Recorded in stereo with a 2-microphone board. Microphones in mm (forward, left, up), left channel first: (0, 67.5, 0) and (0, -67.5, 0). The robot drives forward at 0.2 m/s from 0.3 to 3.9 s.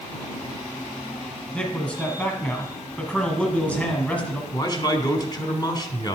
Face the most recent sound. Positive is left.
turn(degrees=30)  # may be behind; listen again after turning